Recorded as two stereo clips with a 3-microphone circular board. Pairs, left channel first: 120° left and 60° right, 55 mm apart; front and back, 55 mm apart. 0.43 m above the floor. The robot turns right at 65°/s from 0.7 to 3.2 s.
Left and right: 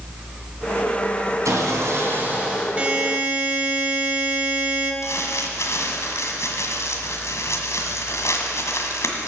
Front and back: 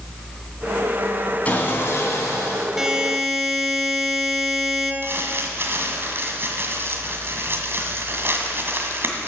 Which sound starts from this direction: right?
A buzzer, at 2.8 s.